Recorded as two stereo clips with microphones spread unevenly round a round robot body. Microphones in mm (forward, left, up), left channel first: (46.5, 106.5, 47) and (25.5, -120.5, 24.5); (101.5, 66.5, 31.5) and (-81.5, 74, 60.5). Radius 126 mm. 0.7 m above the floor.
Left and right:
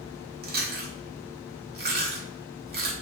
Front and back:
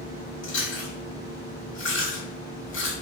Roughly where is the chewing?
Ahead right.